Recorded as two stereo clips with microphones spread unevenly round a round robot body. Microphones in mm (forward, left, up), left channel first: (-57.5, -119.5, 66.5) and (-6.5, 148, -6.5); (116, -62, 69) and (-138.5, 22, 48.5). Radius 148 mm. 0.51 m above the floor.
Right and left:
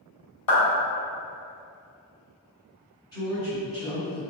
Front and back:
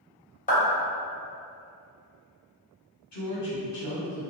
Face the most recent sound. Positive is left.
turn(degrees=-20)